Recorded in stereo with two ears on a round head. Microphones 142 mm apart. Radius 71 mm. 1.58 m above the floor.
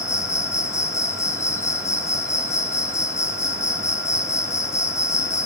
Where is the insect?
20° left (ahead or behind), 1.5 m.